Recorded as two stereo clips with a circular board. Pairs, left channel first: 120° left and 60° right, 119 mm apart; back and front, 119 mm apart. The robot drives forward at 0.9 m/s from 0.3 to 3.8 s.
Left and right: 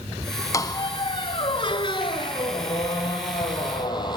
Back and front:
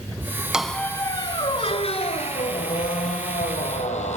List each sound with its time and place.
0.5 s a squeak: 80° left, 0.7 m; by 4.2 s 170° left, 3 m